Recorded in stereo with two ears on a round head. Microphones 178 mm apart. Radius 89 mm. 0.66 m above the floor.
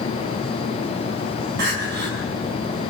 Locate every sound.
1.6 s crying: 60° right (ahead or behind), 5 m